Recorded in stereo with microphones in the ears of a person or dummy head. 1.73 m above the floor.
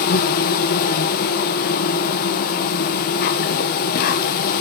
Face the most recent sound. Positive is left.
turn(degrees=50)  # may be behind; listen again after turning